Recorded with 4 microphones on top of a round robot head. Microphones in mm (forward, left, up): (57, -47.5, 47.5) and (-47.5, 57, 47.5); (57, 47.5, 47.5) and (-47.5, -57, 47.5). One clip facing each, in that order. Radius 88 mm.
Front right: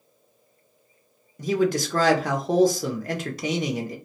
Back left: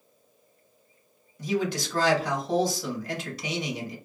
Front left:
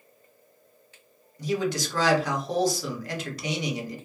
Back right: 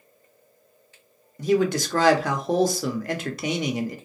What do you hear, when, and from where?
1.4 s a man speaking: 95° right, 0.6 m